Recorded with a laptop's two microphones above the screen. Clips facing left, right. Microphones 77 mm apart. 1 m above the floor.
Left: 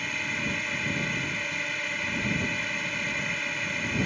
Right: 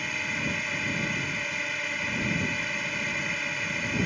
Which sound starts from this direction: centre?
A drone, at 0.0 s.